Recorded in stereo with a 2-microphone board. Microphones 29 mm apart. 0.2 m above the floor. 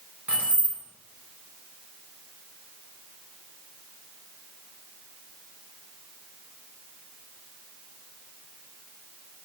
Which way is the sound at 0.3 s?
55° right (ahead or behind).